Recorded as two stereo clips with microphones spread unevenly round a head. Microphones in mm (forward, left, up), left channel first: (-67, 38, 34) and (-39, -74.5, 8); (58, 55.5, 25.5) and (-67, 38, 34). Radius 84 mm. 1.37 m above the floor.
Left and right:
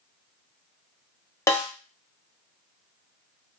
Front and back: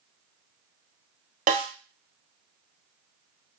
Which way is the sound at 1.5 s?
170° left.